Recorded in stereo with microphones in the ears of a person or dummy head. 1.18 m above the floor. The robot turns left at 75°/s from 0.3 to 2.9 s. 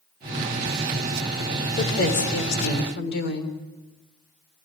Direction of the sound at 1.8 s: 145° left.